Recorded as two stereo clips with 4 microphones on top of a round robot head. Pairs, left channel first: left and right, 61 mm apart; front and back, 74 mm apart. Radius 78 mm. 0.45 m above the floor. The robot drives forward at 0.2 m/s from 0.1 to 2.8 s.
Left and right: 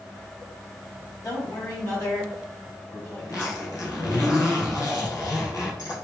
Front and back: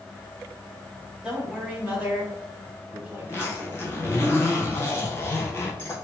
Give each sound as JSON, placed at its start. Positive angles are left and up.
{"t": 1.2, "sound": "a man speaking", "azimuth_deg": 105, "distance_m": 1.9}
{"t": 3.2, "sound": "a zipper", "azimuth_deg": 65, "distance_m": 1.6}